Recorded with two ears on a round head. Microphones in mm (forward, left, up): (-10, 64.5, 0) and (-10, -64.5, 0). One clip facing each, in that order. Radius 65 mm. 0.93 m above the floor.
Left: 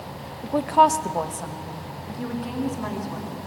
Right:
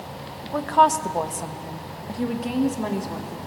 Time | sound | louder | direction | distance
0.4 | a woman speaking | even | 30° left (ahead or behind) | 0.8 m